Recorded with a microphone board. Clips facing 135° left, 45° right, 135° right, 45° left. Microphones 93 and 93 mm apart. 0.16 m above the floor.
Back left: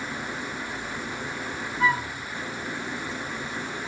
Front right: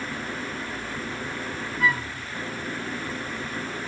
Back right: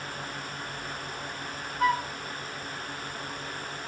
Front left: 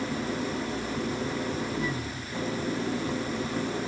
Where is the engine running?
40° left.